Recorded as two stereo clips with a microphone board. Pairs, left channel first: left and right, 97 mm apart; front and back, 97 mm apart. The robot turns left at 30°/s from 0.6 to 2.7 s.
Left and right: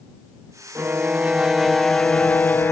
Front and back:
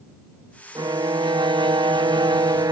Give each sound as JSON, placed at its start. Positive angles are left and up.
{"t": 0.8, "sound": "a violin", "azimuth_deg": -150}